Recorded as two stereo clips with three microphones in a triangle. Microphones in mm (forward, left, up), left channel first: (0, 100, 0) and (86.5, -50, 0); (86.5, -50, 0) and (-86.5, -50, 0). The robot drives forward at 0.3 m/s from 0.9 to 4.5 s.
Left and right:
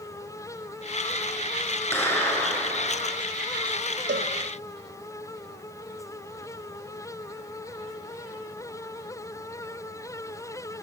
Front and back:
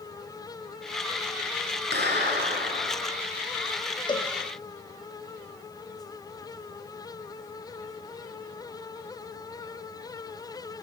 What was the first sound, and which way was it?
A clap, 165° right.